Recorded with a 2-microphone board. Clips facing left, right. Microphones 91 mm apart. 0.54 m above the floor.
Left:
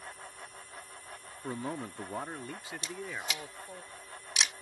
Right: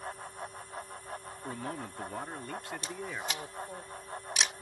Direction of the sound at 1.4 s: 20° left (ahead or behind).